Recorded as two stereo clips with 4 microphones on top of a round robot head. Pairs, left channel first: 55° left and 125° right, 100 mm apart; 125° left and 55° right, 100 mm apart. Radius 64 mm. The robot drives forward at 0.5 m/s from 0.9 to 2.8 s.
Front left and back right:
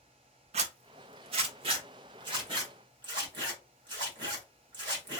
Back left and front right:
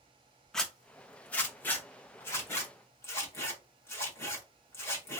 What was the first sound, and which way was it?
A zipper, 150° right.